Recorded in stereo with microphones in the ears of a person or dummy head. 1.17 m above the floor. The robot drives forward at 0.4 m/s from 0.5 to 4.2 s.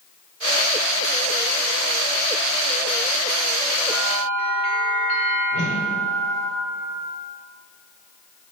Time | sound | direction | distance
3.9 | a bell | 35° left (ahead or behind) | 1.8 m
5.5 | a whoosh | 45° left (ahead or behind) | 1.2 m